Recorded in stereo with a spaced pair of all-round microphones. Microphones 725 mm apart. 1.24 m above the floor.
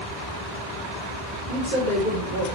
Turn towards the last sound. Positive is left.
turn(degrees=85)